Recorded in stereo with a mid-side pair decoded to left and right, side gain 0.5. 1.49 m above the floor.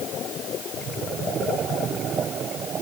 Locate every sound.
Only background noise.